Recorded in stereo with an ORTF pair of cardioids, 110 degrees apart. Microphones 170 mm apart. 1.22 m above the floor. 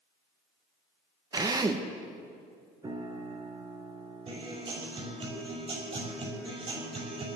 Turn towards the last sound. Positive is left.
turn(degrees=-35)